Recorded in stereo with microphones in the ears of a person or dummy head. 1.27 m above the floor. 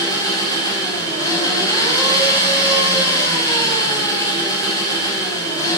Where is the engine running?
20° left (ahead or behind), 4 m.